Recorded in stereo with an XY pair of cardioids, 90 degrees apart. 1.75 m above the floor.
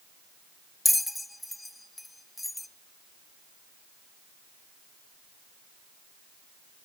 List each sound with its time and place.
0.8 s a bell: 10° left, 0.7 m